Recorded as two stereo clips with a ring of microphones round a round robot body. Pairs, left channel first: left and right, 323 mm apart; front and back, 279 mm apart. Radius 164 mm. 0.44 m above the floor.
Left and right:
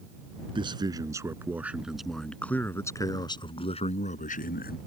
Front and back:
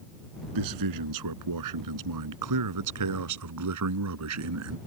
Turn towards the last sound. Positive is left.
turn(degrees=150)